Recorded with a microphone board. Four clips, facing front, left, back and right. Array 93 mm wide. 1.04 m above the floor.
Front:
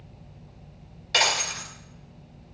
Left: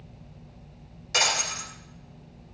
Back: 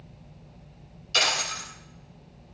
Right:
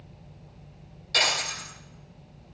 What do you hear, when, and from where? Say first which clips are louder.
1.1 s breaking glass: even, front 2 dB; 15° left, 5 m